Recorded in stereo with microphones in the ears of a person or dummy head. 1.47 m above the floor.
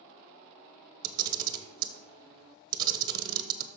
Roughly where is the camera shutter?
Right.